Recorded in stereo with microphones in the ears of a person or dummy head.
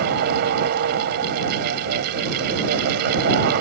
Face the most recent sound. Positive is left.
turn(degrees=-50)  # may be behind; listen again after turning